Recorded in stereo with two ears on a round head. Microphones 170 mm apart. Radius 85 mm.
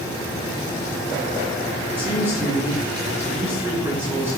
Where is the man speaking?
15° right (ahead or behind), 3.5 m.